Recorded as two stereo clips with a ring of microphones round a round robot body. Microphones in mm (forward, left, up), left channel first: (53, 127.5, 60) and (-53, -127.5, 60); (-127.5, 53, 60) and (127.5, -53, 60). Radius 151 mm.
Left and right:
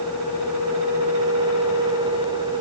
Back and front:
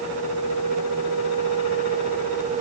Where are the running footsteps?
No running footsteps in this recording.